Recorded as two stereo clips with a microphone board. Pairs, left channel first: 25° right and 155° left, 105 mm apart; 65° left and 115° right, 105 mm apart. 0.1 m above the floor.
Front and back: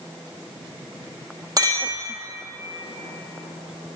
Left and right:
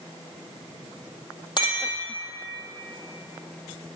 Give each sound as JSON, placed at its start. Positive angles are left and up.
{"t": 1.6, "sound": "a clink", "azimuth_deg": 105, "distance_m": 2.0}